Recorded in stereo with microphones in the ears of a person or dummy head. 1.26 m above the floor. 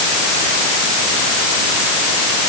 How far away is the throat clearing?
I don't hear throat clearing.